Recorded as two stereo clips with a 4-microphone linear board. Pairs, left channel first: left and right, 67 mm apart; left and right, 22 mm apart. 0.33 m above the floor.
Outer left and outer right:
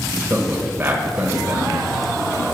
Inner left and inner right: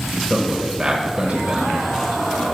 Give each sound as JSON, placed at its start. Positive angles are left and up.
{"t": 0.3, "sound": "a man speaking", "side_deg": -35, "distance_m": 1.1}